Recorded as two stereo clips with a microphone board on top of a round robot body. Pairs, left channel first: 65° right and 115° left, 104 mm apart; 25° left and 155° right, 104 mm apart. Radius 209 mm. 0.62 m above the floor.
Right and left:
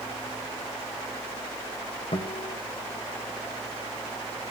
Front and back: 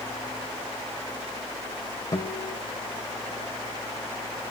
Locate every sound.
2.1 s a guitar: 35° right, 2 m